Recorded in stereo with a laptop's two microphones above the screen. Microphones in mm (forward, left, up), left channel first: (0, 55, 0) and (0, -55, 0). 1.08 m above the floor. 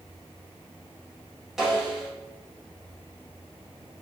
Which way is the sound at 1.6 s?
5° right (ahead or behind).